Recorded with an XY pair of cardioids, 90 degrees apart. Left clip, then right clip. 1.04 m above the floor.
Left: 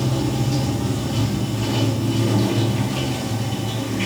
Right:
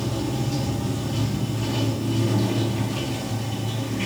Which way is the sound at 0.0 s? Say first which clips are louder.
Left 4 dB; 30° left.